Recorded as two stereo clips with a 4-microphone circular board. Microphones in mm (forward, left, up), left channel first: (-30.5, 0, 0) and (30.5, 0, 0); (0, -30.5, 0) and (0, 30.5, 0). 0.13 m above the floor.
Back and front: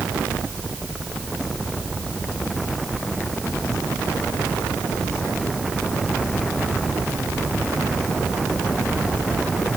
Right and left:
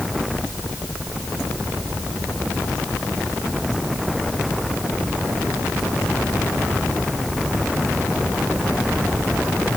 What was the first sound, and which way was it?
Only background noise.